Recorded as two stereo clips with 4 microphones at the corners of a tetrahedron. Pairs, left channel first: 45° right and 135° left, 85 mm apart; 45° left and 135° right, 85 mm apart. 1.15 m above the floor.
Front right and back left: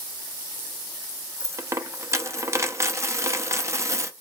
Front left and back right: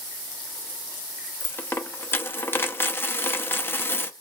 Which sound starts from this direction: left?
A dropped coin, at 1.4 s.